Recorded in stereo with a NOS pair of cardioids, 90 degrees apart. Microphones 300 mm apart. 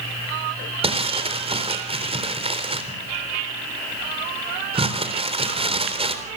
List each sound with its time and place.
0.8 s crumpling: 20° right, 3.5 m